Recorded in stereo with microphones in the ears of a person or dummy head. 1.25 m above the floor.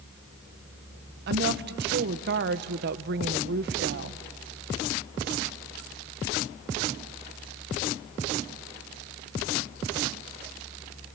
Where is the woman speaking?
55° right (ahead or behind), 0.9 m.